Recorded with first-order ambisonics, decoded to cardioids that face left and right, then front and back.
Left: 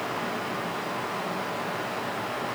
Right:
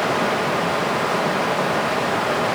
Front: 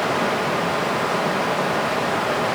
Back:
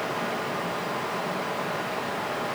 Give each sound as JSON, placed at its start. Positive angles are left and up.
{"t": 0.0, "sound": "running water", "azimuth_deg": -55, "distance_m": 0.9}